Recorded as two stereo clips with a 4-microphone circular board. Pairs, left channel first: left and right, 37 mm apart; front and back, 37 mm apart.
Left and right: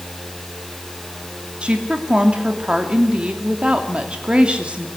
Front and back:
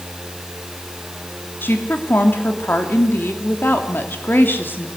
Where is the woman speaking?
30° right, 3 m.